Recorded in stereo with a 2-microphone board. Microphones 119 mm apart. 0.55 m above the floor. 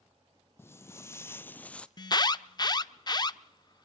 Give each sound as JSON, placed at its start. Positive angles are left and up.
{"t": 0.6, "sound": "footsteps", "side_deg": 20, "distance_m": 0.8}
{"t": 2.0, "sound": "an alarm", "side_deg": 35, "distance_m": 0.6}